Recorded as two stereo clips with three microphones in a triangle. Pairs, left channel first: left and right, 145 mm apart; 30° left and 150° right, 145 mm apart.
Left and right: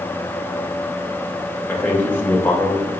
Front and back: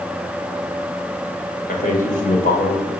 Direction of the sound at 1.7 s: 15° left.